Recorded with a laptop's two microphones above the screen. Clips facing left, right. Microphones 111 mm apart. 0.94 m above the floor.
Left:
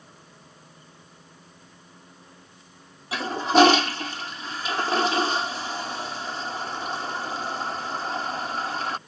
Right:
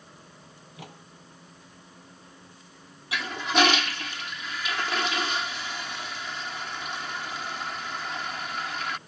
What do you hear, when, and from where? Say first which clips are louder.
0.6 s a microwave: right 5 dB; 75° right (ahead or behind)
3.1 s a toilet flushing: left 7 dB; 35° left (ahead or behind)